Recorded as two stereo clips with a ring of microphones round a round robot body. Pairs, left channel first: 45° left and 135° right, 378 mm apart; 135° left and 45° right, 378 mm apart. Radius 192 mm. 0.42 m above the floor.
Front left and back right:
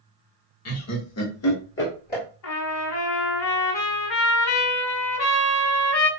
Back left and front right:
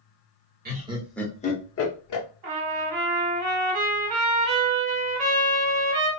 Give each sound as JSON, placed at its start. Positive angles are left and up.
{"t": 0.7, "sound": "laughter", "azimuth_deg": 10, "distance_m": 1.0}
{"t": 2.4, "sound": "a trumpet", "azimuth_deg": 0, "distance_m": 1.1}